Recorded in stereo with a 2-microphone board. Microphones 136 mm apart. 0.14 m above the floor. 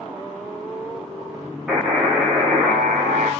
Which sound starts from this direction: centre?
A buzzer, at 1.7 s.